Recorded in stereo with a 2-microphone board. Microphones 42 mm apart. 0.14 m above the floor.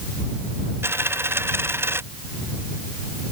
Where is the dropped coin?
70° right (ahead or behind).